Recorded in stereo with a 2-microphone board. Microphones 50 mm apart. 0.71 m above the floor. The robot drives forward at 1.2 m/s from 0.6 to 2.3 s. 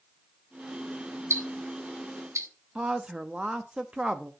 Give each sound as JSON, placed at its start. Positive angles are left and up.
{"t": 1.3, "sound": "ticking", "side_deg": -60, "distance_m": 1.9}
{"t": 2.8, "sound": "a woman speaking", "side_deg": -15, "distance_m": 0.7}